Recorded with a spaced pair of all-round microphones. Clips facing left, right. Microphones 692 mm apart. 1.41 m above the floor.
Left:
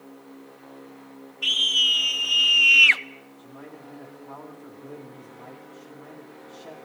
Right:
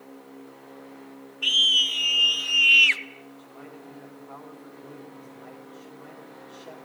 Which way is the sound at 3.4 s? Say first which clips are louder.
Left 4 dB; 70° left (ahead or behind).